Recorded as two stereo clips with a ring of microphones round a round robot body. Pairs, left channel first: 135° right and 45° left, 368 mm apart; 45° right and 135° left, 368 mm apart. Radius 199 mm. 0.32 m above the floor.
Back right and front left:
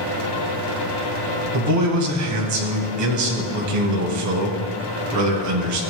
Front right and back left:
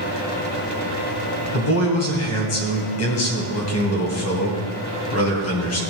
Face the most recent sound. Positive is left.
turn(degrees=5)